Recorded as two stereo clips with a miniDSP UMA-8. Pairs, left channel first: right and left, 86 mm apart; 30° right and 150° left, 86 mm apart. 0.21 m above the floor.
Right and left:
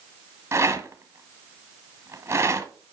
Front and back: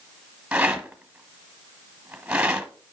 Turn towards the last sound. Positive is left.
turn(degrees=85)